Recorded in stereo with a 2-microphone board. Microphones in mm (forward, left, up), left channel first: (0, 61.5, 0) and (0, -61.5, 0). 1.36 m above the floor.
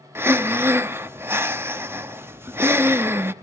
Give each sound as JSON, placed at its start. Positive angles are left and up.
{"t": 0.1, "sound": "breathing", "side_deg": -20, "distance_m": 0.8}